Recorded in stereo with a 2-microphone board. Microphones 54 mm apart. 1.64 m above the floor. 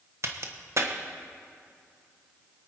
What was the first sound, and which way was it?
A crack, 55° right (ahead or behind).